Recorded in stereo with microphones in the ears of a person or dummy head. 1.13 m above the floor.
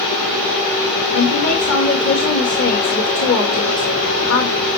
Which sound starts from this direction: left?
A woman speaking, at 1.1 s.